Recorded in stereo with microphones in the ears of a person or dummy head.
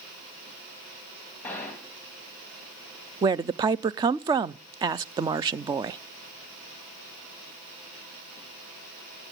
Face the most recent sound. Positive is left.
turn(degrees=-25)  # may be behind; listen again after turning